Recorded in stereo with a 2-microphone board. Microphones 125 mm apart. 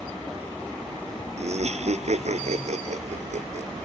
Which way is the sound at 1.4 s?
60° right (ahead or behind).